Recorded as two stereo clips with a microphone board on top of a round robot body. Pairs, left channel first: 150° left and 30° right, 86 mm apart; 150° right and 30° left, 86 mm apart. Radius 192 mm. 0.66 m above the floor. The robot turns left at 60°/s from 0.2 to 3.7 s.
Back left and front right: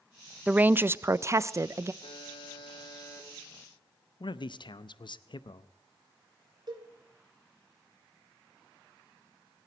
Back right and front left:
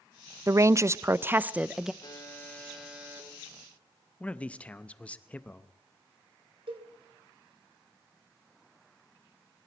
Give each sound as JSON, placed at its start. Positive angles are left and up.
{"t": 0.5, "sound": "a woman speaking", "azimuth_deg": 35, "distance_m": 0.5}
{"t": 2.0, "sound": "a buzzer", "azimuth_deg": 165, "distance_m": 2.5}
{"t": 4.2, "sound": "a man speaking", "azimuth_deg": 135, "distance_m": 0.7}
{"t": 6.7, "sound": "a cowbell", "azimuth_deg": 10, "distance_m": 2.5}